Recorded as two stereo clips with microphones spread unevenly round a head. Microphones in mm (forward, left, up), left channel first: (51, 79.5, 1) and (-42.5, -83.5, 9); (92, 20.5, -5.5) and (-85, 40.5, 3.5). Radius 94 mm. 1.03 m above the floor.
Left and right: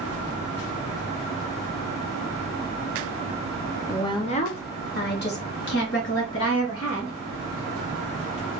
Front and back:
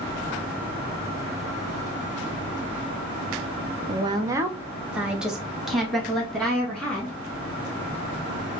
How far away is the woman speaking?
About 0.6 m.